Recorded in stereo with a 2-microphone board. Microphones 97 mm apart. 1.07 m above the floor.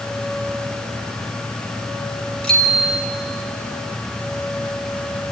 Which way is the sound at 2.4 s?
10° left (ahead or behind).